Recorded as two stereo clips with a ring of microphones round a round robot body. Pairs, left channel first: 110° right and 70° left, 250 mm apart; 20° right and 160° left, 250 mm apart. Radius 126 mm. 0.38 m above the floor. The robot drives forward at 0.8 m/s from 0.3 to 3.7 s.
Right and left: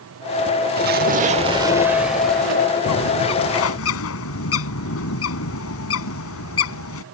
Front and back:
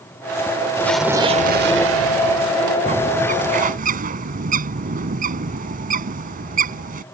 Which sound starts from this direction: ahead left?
An explosion, at 0.8 s.